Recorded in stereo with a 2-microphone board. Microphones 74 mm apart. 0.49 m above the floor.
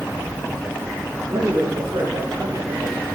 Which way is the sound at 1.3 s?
70° right (ahead or behind).